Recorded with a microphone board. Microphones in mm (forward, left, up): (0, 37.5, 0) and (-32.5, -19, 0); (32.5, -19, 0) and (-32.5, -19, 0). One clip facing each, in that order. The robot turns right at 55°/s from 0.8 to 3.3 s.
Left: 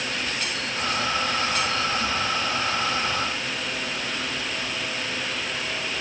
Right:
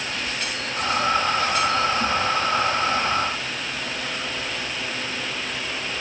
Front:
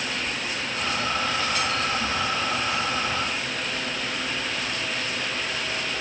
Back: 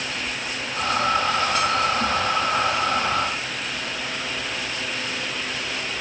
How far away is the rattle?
No rattle in this recording.